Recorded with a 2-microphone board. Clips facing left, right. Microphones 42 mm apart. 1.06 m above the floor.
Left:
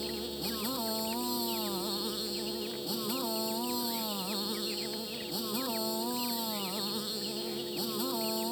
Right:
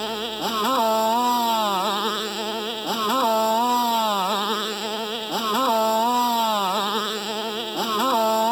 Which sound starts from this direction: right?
A motorcycle, at 0.0 s.